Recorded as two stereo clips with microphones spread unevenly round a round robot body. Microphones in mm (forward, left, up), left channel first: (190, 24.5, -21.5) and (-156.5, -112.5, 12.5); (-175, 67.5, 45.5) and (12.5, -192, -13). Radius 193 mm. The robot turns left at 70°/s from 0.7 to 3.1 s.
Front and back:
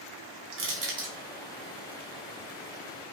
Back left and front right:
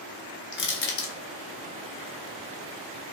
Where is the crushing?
165° left, 0.7 m; by 1.1 s 135° left, 0.7 m.